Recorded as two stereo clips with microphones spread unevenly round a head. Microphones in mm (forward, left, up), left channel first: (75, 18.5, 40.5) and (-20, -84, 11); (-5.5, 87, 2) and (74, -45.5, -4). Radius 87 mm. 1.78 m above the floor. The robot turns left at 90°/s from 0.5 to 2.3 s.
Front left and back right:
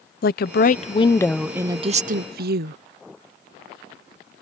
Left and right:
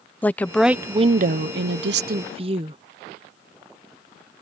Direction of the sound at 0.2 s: 40° left.